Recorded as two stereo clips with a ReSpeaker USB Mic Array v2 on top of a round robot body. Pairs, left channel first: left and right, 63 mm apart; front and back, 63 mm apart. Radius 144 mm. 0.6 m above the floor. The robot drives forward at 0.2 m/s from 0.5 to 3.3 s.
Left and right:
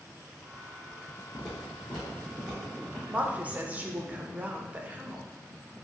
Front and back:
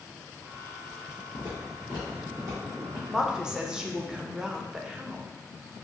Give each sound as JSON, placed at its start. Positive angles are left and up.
{"t": 1.3, "sound": "footsteps", "azimuth_deg": -15, "distance_m": 0.5}
{"t": 3.1, "sound": "a woman speaking", "azimuth_deg": -105, "distance_m": 0.5}